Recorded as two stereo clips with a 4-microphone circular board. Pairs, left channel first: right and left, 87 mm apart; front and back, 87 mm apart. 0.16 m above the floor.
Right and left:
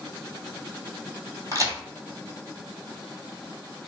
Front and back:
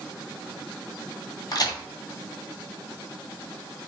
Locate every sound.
1.5 s a crack: 40° left, 0.9 m